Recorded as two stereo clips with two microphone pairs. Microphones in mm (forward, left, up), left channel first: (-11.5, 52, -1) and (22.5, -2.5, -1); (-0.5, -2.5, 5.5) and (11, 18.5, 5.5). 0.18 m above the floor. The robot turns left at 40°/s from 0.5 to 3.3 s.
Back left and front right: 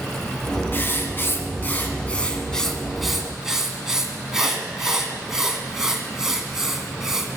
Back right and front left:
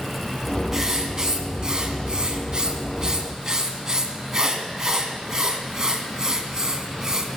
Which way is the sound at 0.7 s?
125° left.